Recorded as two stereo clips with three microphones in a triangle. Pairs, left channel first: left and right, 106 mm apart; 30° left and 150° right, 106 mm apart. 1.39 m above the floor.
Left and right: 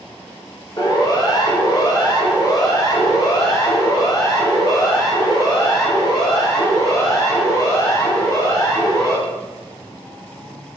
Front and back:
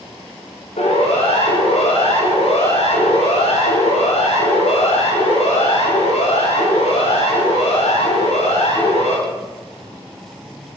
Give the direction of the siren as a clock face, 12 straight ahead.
11 o'clock.